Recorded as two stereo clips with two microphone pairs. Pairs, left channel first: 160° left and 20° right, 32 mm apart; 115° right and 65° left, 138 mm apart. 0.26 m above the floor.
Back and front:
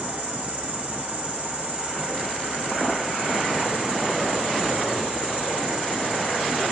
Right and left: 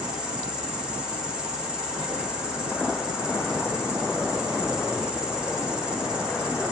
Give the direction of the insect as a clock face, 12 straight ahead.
1 o'clock.